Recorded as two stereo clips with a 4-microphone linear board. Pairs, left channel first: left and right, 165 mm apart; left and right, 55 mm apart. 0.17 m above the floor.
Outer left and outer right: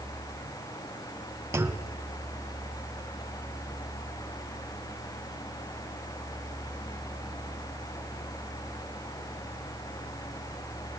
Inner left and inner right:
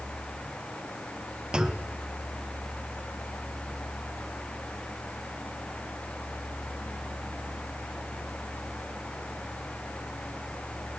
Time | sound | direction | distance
1.5 | a clunk | 15° right (ahead or behind) | 0.7 m